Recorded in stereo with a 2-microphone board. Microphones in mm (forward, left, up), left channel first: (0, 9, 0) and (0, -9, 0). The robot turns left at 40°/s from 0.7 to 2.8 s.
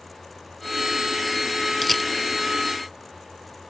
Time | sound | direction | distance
1.8 | a camera shutter | centre (ahead or behind) | ?